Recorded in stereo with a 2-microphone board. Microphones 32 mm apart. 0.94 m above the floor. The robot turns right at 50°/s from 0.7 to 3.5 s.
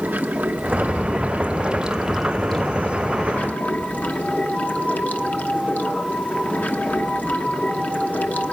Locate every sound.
0.0 s running water: 80° right, 1.2 m; by 8.5 s 60° left, 1.2 m